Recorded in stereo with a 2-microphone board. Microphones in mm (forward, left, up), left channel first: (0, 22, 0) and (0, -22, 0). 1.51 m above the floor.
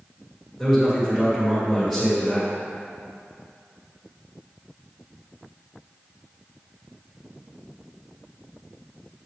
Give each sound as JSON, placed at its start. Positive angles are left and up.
{"t": 0.6, "sound": "a man speaking", "side_deg": -5, "distance_m": 1.8}